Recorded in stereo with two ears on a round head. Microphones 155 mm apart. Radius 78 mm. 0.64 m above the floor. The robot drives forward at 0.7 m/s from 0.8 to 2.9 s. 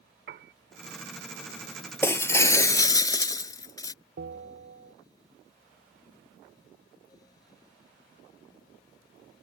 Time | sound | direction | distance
0.3 | a piano | 50° right (ahead or behind) | ?
2.0 | breaking glass | 15° left (ahead or behind) | ?
4.2 | a bell | 65° right (ahead or behind) | ?